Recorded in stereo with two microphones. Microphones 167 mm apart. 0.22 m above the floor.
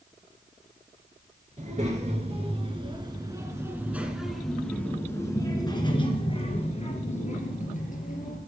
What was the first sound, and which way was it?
A child speaking, 45° right (ahead or behind).